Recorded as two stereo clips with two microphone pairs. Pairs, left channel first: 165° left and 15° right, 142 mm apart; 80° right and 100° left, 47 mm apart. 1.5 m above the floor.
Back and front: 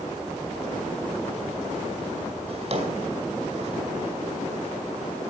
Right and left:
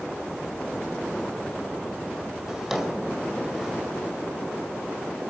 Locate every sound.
2.5 s a drawer: 15° left, 2 m